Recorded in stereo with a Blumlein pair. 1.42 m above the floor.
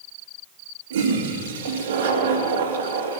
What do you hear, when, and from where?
0.9 s a toilet flushing: 60° right, 2.5 m